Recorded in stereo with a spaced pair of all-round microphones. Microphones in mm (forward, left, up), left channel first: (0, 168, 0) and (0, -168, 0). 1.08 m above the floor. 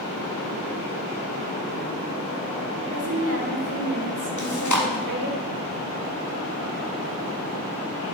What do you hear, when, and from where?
2.9 s a woman speaking: 65° right (ahead or behind), 2 m
4.4 s chewing: 60° left (ahead or behind), 1.3 m